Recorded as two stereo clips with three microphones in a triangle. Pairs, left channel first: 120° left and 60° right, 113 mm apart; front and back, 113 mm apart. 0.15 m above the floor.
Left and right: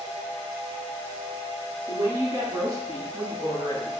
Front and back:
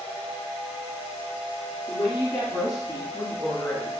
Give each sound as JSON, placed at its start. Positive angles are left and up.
{"t": 1.9, "sound": "a woman speaking", "azimuth_deg": 0, "distance_m": 1.7}